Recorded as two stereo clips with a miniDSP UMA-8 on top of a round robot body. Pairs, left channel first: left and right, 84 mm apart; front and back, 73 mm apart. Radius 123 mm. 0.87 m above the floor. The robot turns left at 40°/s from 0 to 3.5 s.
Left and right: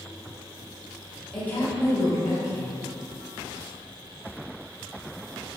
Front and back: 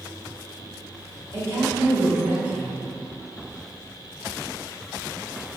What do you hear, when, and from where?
1.3 s a woman speaking: 160° left, 1.0 m; by 2.8 s 105° left, 1.0 m